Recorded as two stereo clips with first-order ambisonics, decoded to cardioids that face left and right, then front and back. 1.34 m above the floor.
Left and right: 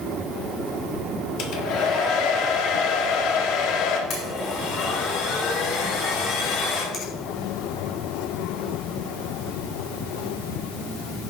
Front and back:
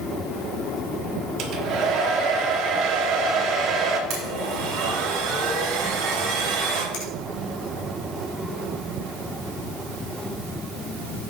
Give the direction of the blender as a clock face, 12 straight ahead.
7 o'clock.